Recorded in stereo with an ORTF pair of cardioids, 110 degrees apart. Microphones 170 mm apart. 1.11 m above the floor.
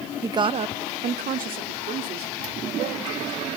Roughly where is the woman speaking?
Ahead.